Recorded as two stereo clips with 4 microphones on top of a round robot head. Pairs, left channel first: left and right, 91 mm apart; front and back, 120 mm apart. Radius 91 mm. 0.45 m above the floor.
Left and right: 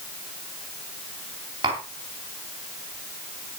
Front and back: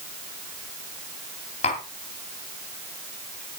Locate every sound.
1.6 s tapping: 40° right, 2.5 m